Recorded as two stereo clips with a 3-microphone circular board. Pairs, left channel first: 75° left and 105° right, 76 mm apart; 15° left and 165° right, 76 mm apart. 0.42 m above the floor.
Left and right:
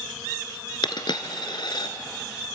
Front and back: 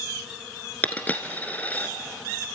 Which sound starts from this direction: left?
A dropped coin, at 0.8 s.